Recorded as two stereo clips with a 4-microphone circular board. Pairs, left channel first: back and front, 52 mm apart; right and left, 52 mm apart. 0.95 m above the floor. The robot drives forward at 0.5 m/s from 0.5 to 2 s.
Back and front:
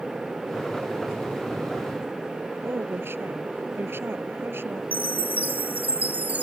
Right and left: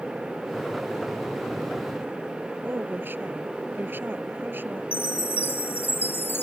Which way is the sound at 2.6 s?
40° left.